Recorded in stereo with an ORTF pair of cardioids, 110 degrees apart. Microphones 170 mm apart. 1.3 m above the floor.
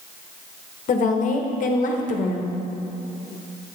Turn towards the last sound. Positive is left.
turn(degrees=50)